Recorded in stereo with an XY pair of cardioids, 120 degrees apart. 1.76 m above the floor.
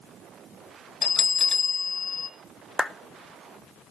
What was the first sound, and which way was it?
A bell, 25° left.